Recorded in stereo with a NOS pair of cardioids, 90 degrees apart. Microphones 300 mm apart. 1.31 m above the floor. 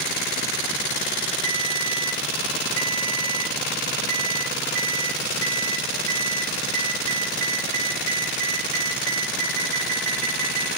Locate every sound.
1.4 s a ringtone: 65° right, 9 m